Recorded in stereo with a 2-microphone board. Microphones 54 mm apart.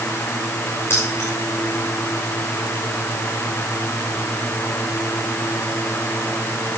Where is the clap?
I don't hear a clap.